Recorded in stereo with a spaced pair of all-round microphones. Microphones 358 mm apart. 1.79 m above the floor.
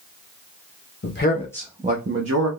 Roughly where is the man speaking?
Left.